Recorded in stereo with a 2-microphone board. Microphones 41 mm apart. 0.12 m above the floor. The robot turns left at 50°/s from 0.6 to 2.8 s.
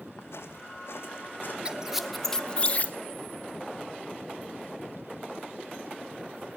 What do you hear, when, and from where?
0.2 s footsteps: 85° left, 4 m; by 1.6 s 45° left (ahead or behind), 5 m
1.6 s a squeak: 20° right (ahead or behind), 0.7 m; by 3.0 s 35° left (ahead or behind), 0.7 m